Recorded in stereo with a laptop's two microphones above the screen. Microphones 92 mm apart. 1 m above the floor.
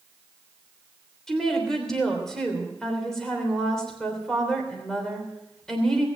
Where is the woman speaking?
5° left (ahead or behind), 3 m.